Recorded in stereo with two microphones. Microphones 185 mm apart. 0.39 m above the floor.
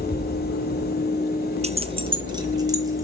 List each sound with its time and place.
1.6 s keys jangling: 35° right (ahead or behind), 0.5 m; by 3.0 s 15° right (ahead or behind), 1.9 m